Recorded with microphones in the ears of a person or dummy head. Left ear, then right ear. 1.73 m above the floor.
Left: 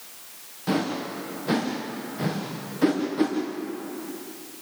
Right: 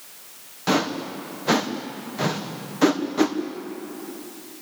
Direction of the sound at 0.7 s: 35° right (ahead or behind).